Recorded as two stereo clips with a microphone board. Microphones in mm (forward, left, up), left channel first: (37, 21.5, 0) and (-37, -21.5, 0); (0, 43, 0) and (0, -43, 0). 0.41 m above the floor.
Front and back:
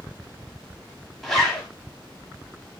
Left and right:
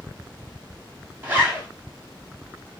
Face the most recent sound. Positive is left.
turn(degrees=-50)